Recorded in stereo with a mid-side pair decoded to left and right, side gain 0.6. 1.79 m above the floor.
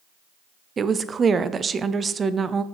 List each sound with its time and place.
0.8 s a woman speaking: 30° right, 0.6 m